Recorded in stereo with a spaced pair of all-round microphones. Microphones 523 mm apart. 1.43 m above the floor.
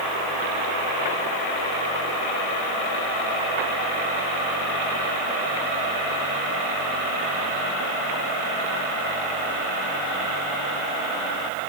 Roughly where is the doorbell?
I don't hear a doorbell.